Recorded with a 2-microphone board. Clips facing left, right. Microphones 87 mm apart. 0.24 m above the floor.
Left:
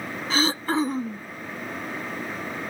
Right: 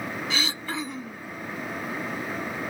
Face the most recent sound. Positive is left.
turn(degrees=40)  # may be behind; listen again after turning